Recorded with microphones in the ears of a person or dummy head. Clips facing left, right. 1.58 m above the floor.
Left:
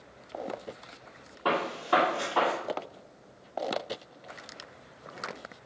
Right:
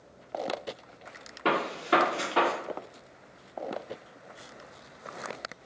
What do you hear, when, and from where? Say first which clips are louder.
1.4 s a gunshot: right 1 dB; 30° right (ahead or behind), 2.5 m